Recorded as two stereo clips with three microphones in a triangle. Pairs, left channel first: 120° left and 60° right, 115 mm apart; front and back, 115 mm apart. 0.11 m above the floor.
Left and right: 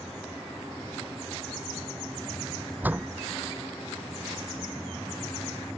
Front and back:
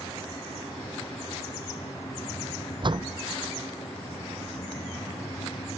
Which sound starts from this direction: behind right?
A door slam, at 2.8 s.